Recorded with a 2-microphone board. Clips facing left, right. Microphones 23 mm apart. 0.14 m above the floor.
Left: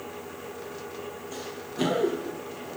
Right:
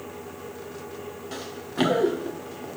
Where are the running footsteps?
80° right, 2.5 m; by 2.7 s 65° right (ahead or behind), 2 m.